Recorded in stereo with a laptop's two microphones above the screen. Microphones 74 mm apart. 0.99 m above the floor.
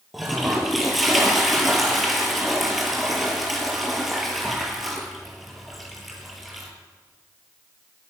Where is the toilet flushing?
Centre (ahead or behind), 7 m.